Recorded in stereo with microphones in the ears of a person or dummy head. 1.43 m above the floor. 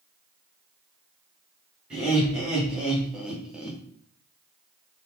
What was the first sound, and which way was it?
Laughter, 5° right (ahead or behind).